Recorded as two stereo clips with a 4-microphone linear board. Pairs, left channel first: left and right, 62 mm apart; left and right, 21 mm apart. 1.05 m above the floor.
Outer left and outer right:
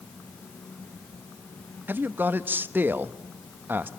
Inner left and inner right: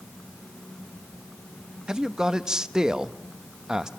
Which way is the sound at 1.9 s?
30° right (ahead or behind).